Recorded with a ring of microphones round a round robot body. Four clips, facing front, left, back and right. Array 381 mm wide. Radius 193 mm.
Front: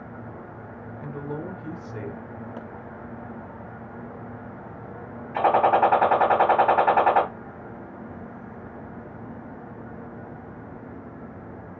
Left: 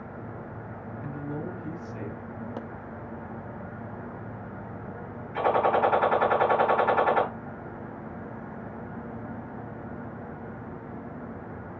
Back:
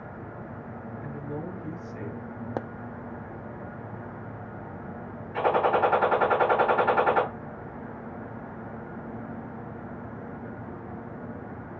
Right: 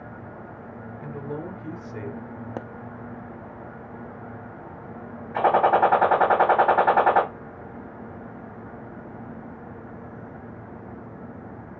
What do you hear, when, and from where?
1.0 s a man speaking: 35° right, 2.5 m
2.6 s a pop: 150° right, 0.5 m
5.3 s a gunshot: 60° right, 3.5 m